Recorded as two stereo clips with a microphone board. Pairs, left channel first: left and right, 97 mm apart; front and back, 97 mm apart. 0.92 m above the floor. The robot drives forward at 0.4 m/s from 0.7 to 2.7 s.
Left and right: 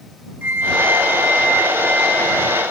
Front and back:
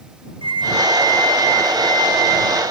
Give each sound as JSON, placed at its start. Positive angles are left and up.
{"t": 0.4, "sound": "a flute", "azimuth_deg": -155, "distance_m": 0.5}